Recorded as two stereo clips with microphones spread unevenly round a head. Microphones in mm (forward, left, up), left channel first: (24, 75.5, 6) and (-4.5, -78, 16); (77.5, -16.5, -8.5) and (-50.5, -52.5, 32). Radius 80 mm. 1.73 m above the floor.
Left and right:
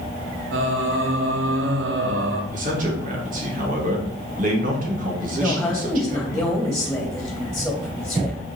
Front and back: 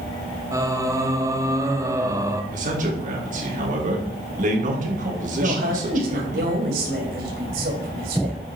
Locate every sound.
0.5 s singing: 95° right, 1.0 m
2.5 s a man speaking: 145° right, 2.5 m
5.4 s a woman speaking: 165° left, 2.5 m